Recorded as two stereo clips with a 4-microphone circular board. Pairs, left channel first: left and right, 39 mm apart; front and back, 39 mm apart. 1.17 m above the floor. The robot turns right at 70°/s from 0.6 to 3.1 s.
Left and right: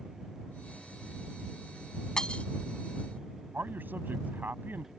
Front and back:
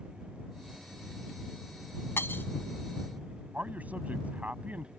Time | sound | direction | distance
2.2 | breaking glass | 15° left | ?
3.5 | a man speaking | 130° right | ?